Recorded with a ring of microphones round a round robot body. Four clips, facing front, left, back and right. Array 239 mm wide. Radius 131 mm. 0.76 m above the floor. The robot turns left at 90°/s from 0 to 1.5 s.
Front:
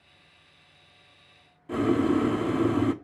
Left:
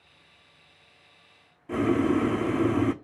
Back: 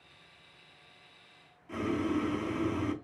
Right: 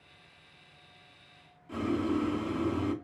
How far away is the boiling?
About 0.5 m.